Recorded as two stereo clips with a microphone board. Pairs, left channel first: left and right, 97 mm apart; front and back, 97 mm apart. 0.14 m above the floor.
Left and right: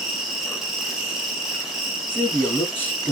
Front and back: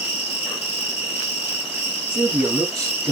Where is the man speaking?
145° left, 1.3 m.